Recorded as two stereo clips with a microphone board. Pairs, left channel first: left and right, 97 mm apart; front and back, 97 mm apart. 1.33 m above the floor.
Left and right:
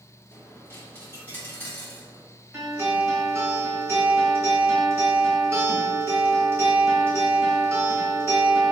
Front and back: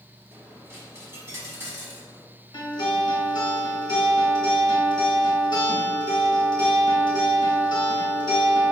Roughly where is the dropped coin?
Behind left.